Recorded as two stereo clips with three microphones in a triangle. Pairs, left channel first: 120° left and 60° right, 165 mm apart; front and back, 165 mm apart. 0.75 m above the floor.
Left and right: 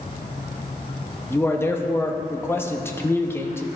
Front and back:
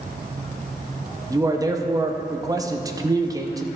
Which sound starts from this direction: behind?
A man speaking, at 1.3 s.